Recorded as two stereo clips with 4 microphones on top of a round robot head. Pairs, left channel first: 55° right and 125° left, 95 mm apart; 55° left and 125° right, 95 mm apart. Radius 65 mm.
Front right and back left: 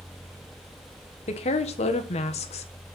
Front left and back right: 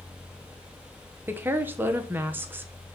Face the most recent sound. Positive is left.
turn(degrees=-60)